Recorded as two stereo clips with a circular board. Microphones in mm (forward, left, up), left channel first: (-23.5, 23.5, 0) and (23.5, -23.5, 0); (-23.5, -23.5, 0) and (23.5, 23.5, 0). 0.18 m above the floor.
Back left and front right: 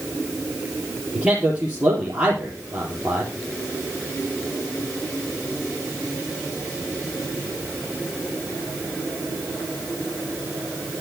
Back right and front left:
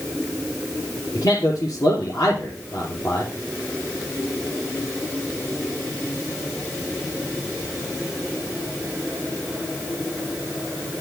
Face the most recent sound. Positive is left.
turn(degrees=-120)